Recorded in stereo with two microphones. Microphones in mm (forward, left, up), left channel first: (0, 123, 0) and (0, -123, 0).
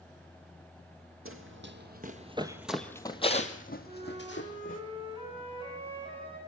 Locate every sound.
1.2 s running footsteps: 60° right (ahead or behind), 2.5 m; by 4.8 s 55° left (ahead or behind), 3.5 m
3.9 s a flute: 20° right (ahead or behind), 9 m